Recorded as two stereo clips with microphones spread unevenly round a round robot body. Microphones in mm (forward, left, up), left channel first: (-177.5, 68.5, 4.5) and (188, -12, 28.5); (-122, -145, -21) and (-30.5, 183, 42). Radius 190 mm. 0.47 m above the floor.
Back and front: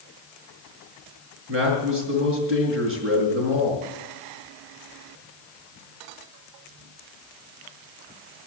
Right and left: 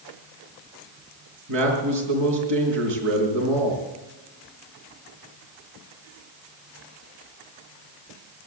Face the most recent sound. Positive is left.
turn(degrees=45)